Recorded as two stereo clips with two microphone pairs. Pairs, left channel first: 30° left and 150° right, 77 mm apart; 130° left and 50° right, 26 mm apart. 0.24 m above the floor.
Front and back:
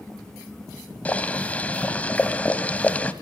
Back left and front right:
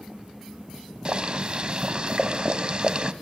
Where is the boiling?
30° right, 1.1 m.